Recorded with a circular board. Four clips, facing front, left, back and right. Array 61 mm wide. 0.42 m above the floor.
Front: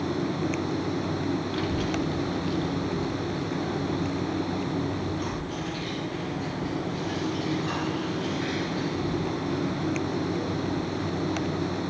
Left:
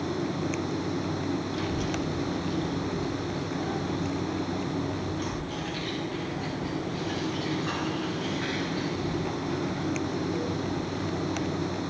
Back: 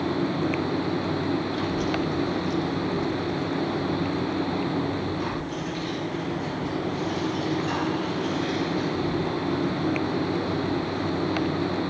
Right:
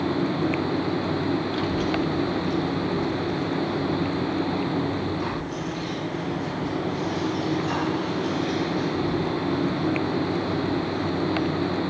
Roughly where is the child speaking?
Ahead right.